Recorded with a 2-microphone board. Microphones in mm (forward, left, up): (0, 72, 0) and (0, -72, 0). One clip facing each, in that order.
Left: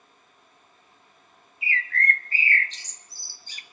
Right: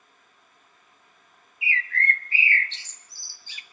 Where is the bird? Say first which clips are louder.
Left 1 dB; 40° left (ahead or behind), 0.9 m.